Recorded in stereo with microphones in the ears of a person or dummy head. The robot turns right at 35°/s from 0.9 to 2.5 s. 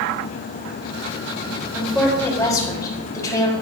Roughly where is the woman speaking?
Centre.